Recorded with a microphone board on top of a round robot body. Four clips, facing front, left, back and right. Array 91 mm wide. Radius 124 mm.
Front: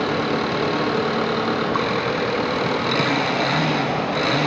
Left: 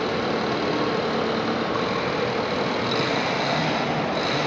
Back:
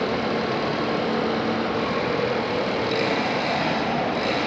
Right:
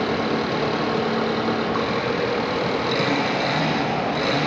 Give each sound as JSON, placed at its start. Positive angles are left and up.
{"t": 0.0, "sound": "an engine running", "azimuth_deg": 5, "distance_m": 5.0}